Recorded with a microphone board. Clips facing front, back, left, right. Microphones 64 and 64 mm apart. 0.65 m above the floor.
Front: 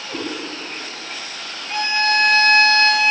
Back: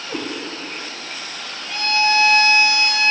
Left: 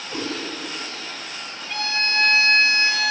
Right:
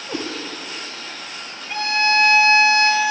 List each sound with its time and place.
0.1 s a cat meowing: 90° right, 1.5 m
1.7 s a violin: 30° right, 1.3 m